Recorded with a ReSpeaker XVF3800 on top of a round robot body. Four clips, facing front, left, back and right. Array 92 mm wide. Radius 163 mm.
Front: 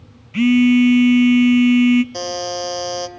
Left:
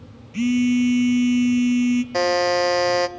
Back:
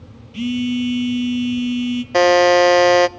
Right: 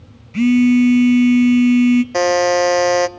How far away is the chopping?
No chopping in this recording.